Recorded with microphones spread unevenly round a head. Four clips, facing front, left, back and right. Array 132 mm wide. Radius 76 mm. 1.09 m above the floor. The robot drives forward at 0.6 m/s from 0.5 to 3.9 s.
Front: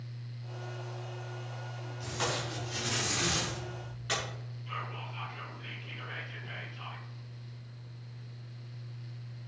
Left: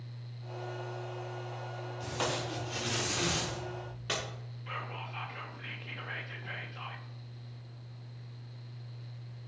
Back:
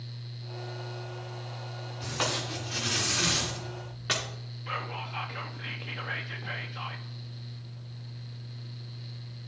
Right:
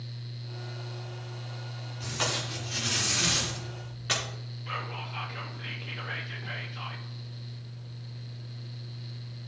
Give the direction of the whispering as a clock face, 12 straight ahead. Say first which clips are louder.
Right 4 dB, back 5 dB; 6 o'clock.